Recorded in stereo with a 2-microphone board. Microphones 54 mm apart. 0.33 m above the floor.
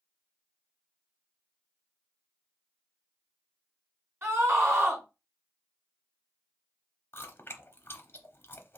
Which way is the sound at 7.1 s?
45° left (ahead or behind).